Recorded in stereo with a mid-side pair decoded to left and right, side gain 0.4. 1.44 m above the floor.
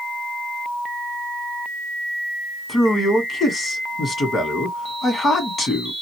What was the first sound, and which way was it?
A man speaking, 45° left.